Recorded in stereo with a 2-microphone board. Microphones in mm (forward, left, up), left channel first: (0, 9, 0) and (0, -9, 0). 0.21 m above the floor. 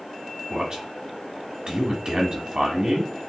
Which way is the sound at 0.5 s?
40° right (ahead or behind).